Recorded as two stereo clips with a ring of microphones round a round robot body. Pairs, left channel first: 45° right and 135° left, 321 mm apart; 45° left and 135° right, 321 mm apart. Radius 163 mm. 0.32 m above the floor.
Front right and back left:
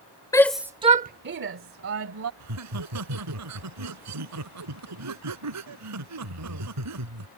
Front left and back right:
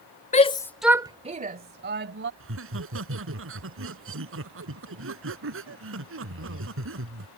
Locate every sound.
0.3 s a shout: 20° left; by 2.3 s 175° left
2.4 s laughter: 175° left